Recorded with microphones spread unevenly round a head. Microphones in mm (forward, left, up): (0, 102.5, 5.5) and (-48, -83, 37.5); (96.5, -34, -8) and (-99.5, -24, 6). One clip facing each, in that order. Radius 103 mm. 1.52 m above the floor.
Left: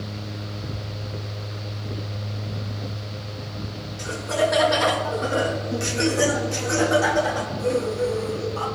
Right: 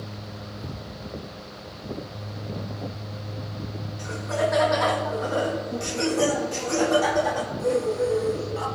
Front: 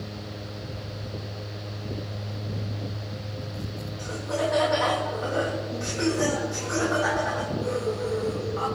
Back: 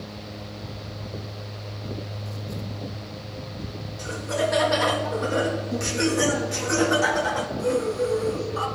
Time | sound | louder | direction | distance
4.0 | laughter | left 3 dB, back 2 dB | 115° left | 2 m